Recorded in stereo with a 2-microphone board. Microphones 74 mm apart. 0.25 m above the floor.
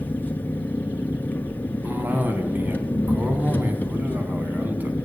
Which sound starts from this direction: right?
A cough, at 1.8 s.